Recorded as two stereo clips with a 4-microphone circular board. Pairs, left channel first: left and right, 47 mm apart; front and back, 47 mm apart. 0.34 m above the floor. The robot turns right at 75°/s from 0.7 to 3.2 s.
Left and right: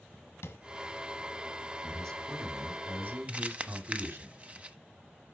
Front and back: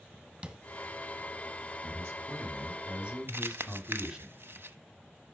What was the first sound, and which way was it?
Tapping, 105° left.